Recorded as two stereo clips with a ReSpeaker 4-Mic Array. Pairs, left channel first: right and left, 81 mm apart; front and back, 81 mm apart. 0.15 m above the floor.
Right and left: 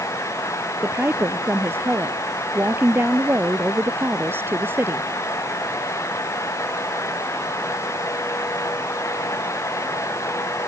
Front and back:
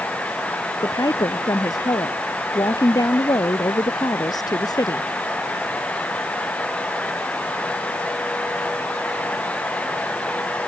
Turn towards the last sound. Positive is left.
turn(degrees=30)